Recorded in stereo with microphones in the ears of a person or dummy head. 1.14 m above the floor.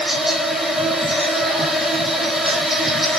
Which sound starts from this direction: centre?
An insect, at 0.0 s.